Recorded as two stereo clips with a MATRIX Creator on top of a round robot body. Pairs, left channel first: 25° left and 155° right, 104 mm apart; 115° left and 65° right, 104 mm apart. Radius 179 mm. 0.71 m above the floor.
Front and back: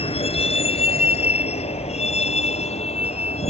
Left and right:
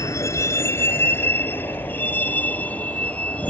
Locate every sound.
0.0 s a vehicle: 50° left; by 3.5 s 35° left